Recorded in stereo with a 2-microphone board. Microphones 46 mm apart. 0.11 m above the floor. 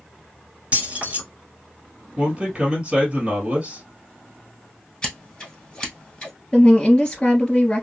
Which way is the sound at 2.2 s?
30° right (ahead or behind).